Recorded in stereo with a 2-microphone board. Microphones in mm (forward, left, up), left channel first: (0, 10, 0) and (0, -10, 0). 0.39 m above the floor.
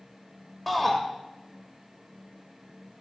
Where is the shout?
15° left (ahead or behind), 1.2 m.